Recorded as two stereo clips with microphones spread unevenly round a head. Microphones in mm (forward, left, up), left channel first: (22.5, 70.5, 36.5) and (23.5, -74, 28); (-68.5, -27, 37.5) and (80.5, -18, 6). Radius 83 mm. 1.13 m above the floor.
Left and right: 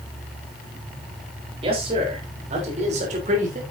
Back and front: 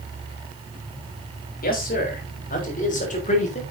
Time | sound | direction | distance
1.6 | a man speaking | 145° right | 4 m